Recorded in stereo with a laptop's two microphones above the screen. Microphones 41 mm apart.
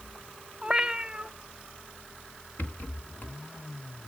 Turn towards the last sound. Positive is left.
turn(degrees=45)  # may be behind; listen again after turning